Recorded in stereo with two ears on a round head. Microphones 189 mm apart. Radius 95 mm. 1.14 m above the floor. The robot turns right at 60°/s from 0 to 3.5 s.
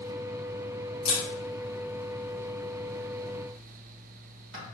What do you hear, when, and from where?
1.1 s a camera shutter: 30° left (ahead or behind), 2.0 m; by 4.7 s 60° right (ahead or behind), 2.0 m